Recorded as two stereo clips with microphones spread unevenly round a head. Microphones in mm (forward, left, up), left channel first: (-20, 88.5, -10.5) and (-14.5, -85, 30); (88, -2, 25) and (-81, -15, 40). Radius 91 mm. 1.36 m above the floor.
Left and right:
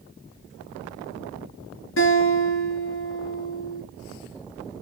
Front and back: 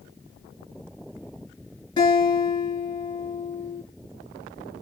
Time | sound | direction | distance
2.0 | a guitar | 75° left | 7.5 m